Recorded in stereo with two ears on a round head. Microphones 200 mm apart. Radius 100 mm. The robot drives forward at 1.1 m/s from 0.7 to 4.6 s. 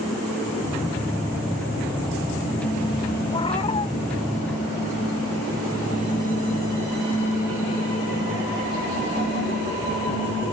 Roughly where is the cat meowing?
Left.